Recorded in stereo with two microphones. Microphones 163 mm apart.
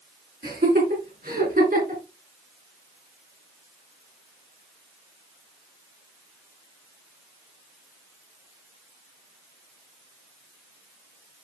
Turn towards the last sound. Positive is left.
turn(degrees=-55)  # may be behind; listen again after turning